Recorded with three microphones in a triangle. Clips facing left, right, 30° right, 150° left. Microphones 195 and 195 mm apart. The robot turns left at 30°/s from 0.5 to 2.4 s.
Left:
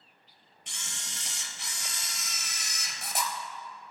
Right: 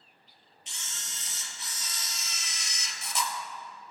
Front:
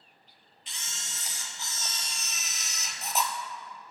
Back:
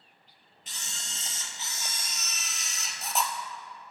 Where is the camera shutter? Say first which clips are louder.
Left 3 dB, back 1 dB; 110° left, 0.7 m; by 3.3 s 60° left, 0.7 m.